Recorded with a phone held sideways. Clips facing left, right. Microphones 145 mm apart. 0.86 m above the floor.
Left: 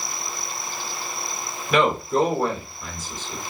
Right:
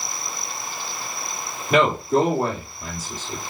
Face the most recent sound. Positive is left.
turn(degrees=-35)  # may be behind; listen again after turning